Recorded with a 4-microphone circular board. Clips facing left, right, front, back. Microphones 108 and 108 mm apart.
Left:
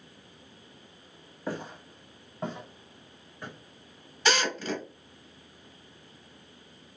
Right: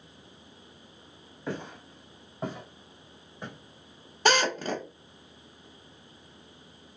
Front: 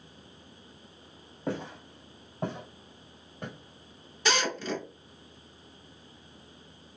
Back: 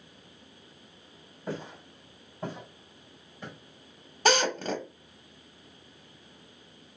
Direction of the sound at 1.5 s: 10° left.